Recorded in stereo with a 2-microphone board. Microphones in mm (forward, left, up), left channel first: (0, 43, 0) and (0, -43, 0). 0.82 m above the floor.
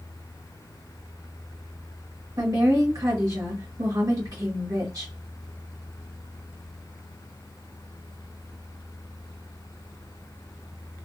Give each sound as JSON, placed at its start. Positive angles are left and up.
{"t": 2.4, "sound": "a woman speaking", "side_deg": -50, "distance_m": 1.6}